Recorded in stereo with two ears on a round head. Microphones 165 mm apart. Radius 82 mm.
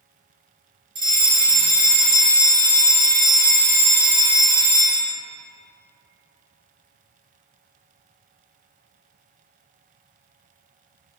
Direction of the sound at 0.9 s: 30° right (ahead or behind).